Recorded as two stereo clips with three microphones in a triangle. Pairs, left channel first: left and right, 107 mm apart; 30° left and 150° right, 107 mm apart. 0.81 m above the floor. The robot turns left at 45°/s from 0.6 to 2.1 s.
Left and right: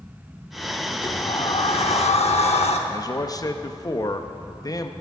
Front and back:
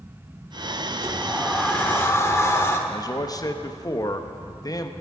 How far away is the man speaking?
About 0.6 m.